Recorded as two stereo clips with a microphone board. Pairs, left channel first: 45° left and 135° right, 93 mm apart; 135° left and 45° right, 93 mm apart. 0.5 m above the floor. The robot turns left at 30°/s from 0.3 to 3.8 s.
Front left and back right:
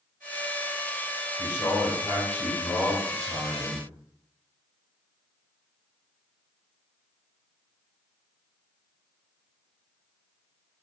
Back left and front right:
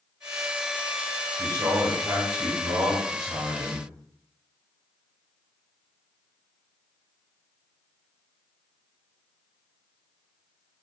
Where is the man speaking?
5° left, 1.7 m; by 3.8 s 70° right, 1.7 m.